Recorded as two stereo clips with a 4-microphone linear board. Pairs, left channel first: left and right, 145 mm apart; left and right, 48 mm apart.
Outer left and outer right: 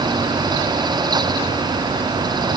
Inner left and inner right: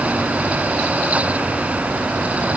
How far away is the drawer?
No drawer in this recording.